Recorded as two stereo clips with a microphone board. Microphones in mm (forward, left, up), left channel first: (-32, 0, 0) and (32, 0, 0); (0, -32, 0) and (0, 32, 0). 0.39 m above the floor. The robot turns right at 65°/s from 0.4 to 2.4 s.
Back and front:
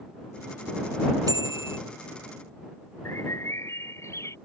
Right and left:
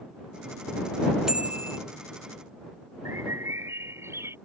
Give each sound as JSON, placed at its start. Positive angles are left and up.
{"t": 1.3, "sound": "a bicycle bell", "azimuth_deg": 10}
{"t": 3.0, "sound": "a bird", "azimuth_deg": 135}